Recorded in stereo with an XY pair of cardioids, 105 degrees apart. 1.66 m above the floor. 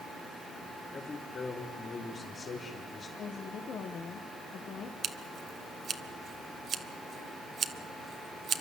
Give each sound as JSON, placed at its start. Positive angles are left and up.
{"t": 0.9, "sound": "a man speaking", "azimuth_deg": 40, "distance_m": 4.5}
{"t": 3.2, "sound": "a woman speaking", "azimuth_deg": 60, "distance_m": 1.6}
{"t": 5.0, "sound": "scissors", "azimuth_deg": -50, "distance_m": 1.3}